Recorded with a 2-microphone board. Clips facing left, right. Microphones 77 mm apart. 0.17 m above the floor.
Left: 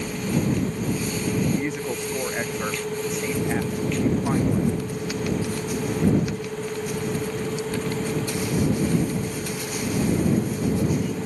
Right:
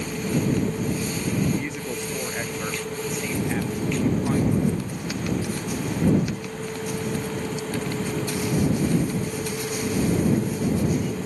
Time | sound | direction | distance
1.6 | a woman speaking | 20° left (ahead or behind) | ?